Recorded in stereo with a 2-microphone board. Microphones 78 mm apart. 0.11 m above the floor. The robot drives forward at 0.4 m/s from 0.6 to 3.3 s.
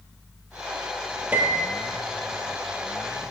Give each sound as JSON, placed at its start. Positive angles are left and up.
{"t": 1.3, "sound": "a piano", "side_deg": -25, "distance_m": 0.9}